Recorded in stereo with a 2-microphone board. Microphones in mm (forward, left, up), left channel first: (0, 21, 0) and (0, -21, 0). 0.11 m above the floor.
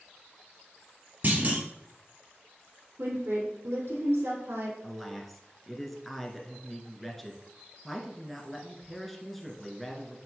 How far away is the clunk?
About 1.9 m.